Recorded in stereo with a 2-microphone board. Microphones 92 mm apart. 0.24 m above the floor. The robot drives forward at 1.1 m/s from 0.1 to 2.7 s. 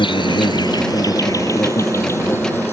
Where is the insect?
65° left (ahead or behind); by 2.7 s 25° left (ahead or behind).